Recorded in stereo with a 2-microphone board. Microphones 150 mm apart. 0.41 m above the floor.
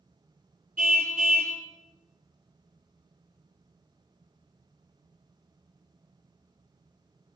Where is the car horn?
70° right (ahead or behind), 4 m.